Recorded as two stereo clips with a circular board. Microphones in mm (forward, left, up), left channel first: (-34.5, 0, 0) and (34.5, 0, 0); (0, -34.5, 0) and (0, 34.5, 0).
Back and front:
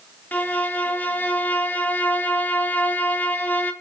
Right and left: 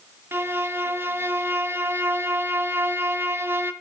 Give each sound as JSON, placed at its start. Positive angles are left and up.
{"t": 0.3, "sound": "a violin", "azimuth_deg": 125, "distance_m": 1.4}